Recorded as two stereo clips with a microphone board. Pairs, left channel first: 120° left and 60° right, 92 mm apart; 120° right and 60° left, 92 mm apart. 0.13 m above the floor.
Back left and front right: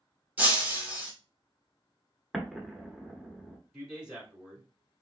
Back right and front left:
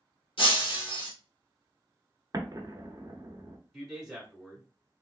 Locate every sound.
0.4 s breaking glass: 130° right, 1.8 m
2.3 s an explosion: 25° left, 0.7 m
3.7 s a man speaking: 5° right, 1.2 m